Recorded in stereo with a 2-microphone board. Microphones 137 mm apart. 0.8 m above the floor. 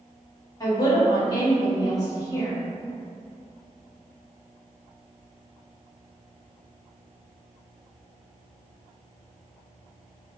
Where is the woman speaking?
25° left (ahead or behind), 1.5 m.